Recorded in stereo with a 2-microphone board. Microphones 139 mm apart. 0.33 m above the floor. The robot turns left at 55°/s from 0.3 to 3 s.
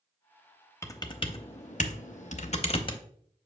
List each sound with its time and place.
0.8 s typing on a keyboard: 20° left (ahead or behind), 0.7 m; by 3.0 s 35° left (ahead or behind), 0.7 m